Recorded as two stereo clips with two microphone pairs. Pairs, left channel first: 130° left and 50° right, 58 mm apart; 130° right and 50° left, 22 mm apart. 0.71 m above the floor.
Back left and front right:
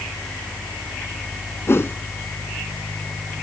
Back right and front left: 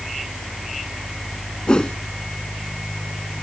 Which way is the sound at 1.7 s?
Straight behind.